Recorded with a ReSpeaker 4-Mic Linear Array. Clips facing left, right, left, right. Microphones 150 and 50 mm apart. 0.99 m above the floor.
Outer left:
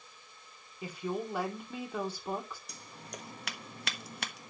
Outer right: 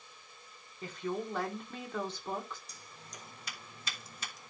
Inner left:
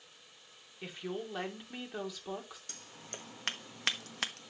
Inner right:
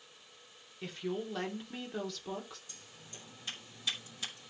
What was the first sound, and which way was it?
A woman speaking, 10° left (ahead or behind).